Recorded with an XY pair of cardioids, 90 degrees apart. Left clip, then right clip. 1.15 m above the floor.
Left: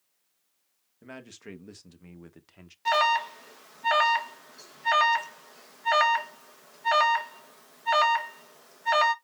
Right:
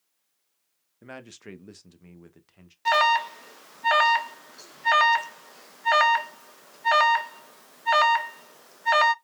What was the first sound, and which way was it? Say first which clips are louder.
A man speaking: right 2 dB; 35° right.